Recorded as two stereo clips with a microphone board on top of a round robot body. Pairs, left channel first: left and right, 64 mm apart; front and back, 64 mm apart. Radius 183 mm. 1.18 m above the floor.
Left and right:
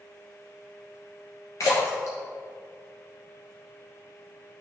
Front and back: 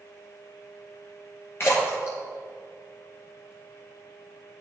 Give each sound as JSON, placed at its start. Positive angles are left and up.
{"t": 1.6, "sound": "a splash", "azimuth_deg": 50, "distance_m": 1.0}